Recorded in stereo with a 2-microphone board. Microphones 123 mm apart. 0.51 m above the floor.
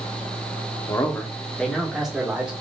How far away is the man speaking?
About 0.8 m.